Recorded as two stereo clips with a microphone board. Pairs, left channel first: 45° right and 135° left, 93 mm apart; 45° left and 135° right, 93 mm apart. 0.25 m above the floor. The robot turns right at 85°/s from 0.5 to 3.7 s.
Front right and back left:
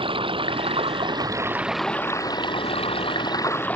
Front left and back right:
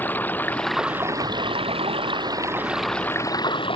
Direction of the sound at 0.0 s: 115° left.